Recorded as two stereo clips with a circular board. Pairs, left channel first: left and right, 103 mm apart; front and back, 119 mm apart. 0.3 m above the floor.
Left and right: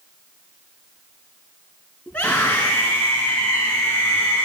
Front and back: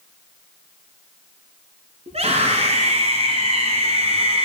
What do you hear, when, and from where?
2.1 s a scream: 165° left, 4 m